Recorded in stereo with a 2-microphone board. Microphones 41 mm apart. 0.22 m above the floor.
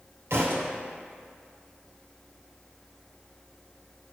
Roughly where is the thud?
Right.